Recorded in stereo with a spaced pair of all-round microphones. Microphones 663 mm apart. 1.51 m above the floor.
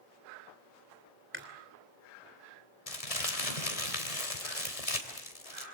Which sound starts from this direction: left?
Crumpling, at 2.9 s.